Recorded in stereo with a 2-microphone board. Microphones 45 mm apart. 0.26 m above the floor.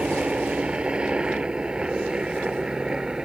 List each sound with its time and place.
0.0 s a helicopter: 20° right (ahead or behind); by 3.3 s 15° right (ahead or behind)